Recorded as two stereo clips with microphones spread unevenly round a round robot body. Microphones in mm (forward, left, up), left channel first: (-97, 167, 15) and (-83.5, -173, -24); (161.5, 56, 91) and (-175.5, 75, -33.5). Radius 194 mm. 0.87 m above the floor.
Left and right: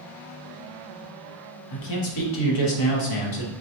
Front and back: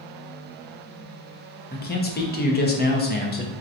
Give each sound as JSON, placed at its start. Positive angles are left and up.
{"t": 1.7, "sound": "a man speaking", "azimuth_deg": 70, "distance_m": 0.9}